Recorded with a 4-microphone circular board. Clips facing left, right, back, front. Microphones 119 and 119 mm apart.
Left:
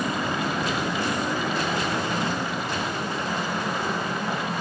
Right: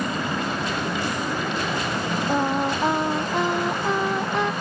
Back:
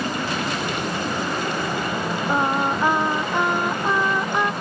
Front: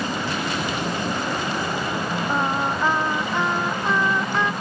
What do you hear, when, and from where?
2.3 s singing: 105° right